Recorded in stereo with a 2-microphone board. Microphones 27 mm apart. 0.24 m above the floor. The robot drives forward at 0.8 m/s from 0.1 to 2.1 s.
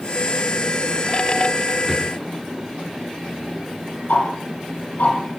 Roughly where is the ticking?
Left.